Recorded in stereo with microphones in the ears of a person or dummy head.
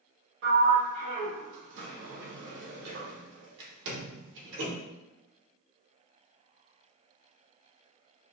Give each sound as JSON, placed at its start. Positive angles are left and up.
{"t": 0.4, "sound": "a sliding door", "side_deg": -65, "distance_m": 0.7}